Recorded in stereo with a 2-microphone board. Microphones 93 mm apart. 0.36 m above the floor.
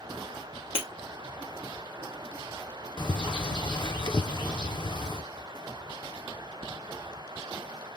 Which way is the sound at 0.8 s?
70° left (ahead or behind).